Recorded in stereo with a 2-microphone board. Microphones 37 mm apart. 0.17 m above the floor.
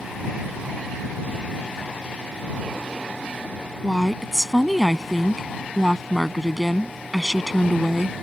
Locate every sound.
3.8 s a woman speaking: 10° right (ahead or behind)